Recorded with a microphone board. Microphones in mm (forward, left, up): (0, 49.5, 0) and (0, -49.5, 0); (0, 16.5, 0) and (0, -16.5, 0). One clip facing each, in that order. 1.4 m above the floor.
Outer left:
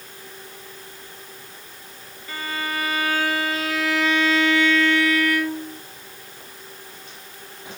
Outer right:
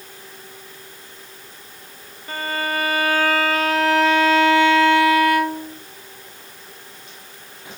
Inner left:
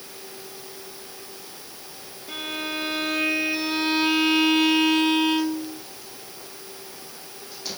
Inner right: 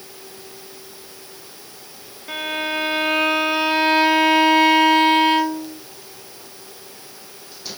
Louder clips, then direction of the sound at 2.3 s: Outer right 4 dB, inner right 6 dB; 50° right (ahead or behind).